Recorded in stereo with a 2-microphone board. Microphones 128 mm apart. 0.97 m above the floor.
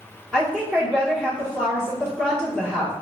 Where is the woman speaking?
Centre (ahead or behind), 1.1 m.